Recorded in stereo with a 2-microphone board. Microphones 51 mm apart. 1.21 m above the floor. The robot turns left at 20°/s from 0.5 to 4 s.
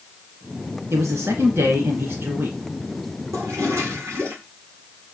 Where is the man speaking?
100° right, 2.5 m; by 2.6 s 135° right, 2.5 m.